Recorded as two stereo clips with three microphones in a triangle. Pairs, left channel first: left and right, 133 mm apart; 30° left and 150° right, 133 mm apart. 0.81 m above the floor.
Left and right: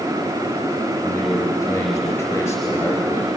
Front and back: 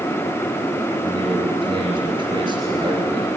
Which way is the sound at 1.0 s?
165° left.